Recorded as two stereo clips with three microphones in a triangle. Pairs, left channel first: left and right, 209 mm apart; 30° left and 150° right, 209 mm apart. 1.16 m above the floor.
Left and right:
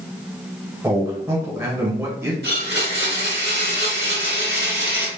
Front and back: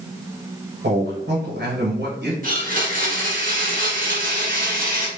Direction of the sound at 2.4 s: 110° right.